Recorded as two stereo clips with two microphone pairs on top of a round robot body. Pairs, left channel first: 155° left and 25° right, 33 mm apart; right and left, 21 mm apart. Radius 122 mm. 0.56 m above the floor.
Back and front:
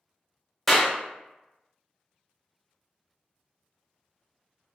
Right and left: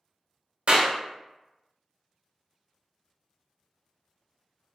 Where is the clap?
80° left, 0.8 m.